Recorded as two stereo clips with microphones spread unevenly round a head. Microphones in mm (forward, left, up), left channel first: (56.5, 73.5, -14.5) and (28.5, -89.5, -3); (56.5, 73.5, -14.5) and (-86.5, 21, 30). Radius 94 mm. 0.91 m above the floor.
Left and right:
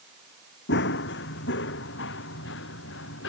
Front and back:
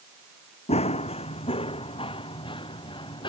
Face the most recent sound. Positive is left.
turn(degrees=80)